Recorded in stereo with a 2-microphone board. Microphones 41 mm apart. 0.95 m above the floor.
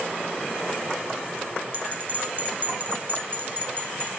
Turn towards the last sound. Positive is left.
turn(degrees=-45)  # may be behind; listen again after turning